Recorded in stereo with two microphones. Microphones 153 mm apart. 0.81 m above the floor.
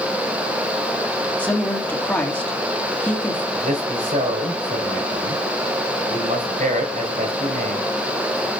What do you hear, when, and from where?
1.4 s a woman speaking: 10° left (ahead or behind), 1.8 m
3.5 s a man speaking: 75° right (ahead or behind), 4 m